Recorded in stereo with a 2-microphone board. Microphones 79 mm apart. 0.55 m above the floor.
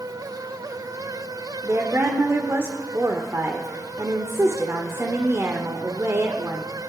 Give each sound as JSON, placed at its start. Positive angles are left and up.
{"t": 1.6, "sound": "a woman speaking", "side_deg": -35, "distance_m": 1.1}